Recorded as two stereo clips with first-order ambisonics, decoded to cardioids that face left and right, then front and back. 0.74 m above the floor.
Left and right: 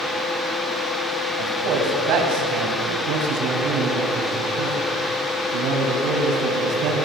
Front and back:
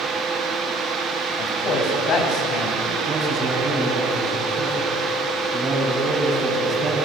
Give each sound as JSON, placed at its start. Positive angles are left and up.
{"t": 1.4, "sound": "a man speaking", "azimuth_deg": -50, "distance_m": 5.0}
{"t": 3.1, "sound": "a man speaking", "azimuth_deg": -105, "distance_m": 6.0}